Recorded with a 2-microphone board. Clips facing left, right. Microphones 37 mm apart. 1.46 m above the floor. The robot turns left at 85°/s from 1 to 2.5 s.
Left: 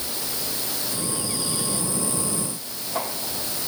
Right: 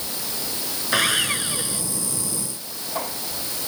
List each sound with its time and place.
0.9 s sawing: 100° right; by 1.8 s 170° right